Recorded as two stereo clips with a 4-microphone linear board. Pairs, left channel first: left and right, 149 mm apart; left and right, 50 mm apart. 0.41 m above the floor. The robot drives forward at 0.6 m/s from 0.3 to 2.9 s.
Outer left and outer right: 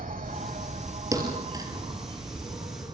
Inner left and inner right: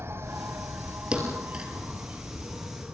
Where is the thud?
20° right (ahead or behind), 4.5 m; by 1.7 s 25° right (ahead or behind), 4.5 m.